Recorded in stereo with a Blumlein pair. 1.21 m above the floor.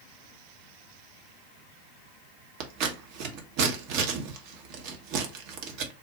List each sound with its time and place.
2.6 s scissors: 45° right, 0.7 m